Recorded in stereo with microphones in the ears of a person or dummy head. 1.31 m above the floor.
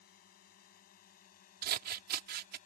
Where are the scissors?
50° right (ahead or behind).